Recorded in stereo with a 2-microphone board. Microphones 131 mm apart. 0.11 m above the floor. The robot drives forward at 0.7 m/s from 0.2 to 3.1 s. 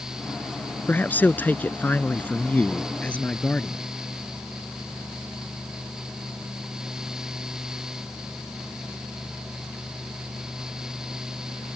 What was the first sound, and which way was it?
A man speaking, 15° left (ahead or behind).